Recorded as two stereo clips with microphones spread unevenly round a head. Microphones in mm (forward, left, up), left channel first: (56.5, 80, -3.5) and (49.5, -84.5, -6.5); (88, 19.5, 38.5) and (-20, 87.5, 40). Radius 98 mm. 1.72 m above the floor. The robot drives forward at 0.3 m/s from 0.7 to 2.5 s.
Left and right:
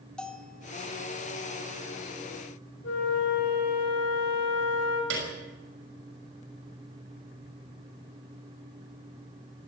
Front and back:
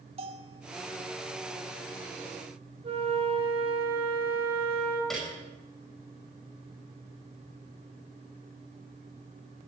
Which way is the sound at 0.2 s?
170° left.